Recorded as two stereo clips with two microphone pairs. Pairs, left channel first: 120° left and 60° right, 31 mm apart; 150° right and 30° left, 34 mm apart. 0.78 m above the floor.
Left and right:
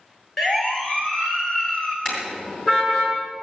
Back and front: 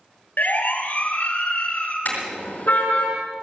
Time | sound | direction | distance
0.4 | a siren | 160° right | 2.5 m
2.0 | a car horn | 175° right | 5 m